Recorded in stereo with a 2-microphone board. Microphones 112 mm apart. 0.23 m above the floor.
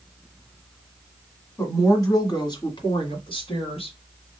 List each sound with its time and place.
1.6 s a woman speaking: 25° left (ahead or behind), 1.6 m; by 4.0 s 60° left (ahead or behind), 2 m